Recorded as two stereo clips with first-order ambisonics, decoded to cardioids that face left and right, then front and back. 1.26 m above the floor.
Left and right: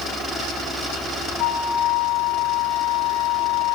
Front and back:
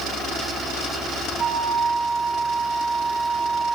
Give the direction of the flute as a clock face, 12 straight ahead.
8 o'clock.